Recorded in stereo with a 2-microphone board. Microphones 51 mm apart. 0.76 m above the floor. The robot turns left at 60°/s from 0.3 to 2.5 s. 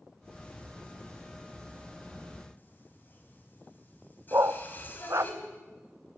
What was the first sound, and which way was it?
Singing, 40° left (ahead or behind).